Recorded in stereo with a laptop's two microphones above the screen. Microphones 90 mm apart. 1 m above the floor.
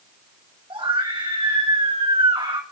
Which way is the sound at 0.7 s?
70° right (ahead or behind).